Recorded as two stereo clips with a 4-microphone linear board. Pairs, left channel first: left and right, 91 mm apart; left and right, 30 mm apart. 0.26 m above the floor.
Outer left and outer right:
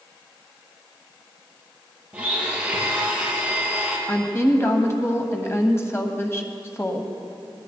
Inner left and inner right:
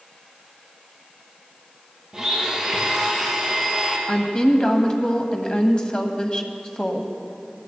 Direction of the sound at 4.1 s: 30° left (ahead or behind).